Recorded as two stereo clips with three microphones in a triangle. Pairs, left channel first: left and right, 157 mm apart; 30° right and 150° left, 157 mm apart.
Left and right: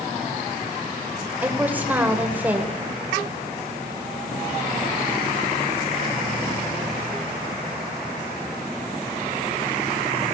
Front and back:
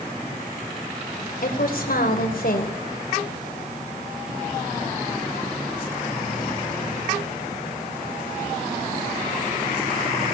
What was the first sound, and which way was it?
A woman speaking, 10° right.